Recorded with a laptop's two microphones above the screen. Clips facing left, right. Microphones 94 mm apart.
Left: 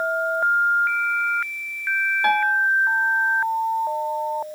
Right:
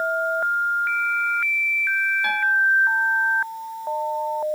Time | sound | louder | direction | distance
2.2 | a piano | left 3 dB | 45° left (ahead or behind) | 0.9 m